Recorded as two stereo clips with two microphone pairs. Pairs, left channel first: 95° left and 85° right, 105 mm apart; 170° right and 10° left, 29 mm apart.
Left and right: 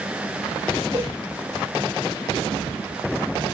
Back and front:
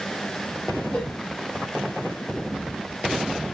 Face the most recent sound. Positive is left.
turn(degrees=-135)